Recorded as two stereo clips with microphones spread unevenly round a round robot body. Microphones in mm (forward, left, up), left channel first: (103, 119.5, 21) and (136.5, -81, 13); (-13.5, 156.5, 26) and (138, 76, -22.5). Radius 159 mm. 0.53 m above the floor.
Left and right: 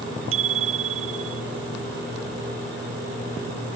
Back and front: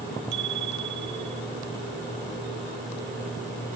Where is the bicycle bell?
80° right.